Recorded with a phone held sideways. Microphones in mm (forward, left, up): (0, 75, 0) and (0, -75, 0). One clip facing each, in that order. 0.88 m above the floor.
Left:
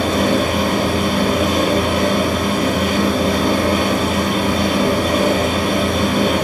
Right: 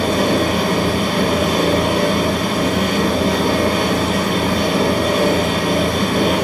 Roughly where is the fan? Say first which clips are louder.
Even; right.